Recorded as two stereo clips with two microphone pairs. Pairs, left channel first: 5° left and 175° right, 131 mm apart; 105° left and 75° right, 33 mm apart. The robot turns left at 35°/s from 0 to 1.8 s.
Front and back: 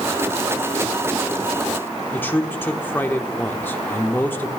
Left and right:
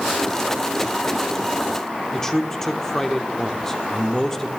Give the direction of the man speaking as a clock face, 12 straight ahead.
10 o'clock.